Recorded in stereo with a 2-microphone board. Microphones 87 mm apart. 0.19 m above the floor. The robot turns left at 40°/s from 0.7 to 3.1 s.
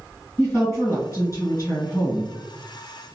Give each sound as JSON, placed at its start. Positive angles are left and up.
{"t": 0.4, "sound": "a woman speaking", "azimuth_deg": 140, "distance_m": 2.0}